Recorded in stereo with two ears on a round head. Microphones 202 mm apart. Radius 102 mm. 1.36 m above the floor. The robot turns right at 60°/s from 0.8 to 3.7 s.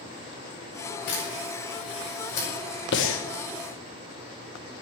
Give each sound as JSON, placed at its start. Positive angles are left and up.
{"t": 1.1, "sound": "a camera shutter", "side_deg": 45, "distance_m": 6.0}
{"t": 2.9, "sound": "breathing", "side_deg": 50, "distance_m": 1.2}